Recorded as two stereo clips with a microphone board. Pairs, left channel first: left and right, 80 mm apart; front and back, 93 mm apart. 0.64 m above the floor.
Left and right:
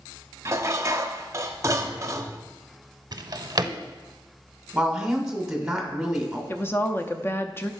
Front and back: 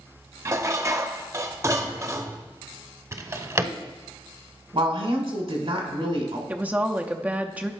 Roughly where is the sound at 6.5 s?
Behind left.